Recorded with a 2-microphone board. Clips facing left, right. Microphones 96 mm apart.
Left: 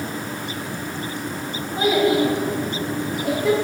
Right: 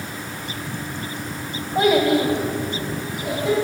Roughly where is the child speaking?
Right.